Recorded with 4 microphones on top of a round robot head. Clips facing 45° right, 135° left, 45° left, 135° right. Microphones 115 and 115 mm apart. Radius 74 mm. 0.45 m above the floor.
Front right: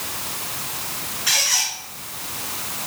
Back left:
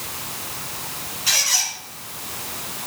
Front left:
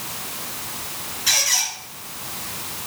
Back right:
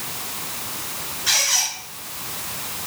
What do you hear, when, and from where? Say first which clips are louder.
1.3 s a squeak: front right 1 dB, back right 1 dB; 80° left, 7 m